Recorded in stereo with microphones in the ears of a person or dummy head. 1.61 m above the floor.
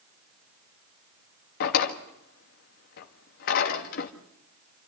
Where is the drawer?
55° left (ahead or behind), 1.5 m.